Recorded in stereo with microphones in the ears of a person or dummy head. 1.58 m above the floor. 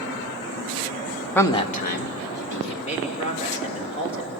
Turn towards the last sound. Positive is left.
turn(degrees=40)  # may be behind; listen again after turning